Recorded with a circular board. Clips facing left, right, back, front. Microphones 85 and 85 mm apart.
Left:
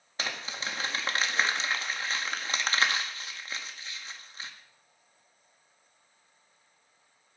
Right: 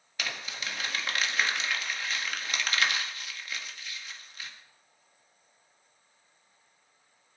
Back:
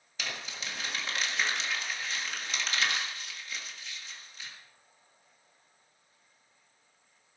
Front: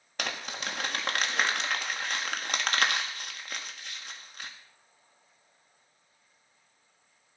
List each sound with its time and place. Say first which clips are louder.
0.2 s crumpling: left 2 dB, front 5 dB; 30° left, 1.7 m